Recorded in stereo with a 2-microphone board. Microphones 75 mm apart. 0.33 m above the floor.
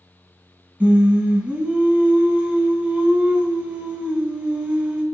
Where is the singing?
15° right (ahead or behind), 1.3 m.